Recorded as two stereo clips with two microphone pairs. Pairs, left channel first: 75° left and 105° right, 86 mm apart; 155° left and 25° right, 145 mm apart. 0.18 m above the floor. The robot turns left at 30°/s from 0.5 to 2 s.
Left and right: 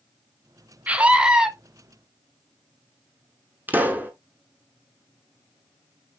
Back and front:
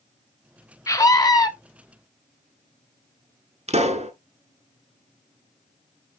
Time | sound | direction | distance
0.9 | a scream | 165° right | 1.1 m
3.7 | a pop | 45° right | 1.2 m